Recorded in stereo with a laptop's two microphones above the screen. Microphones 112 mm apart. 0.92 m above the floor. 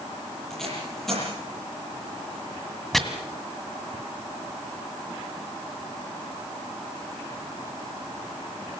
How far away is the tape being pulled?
About 10 m.